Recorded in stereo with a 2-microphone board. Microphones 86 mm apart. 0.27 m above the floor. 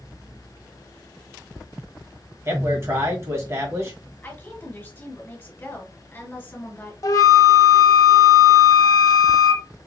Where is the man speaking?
35° right (ahead or behind), 1.6 m.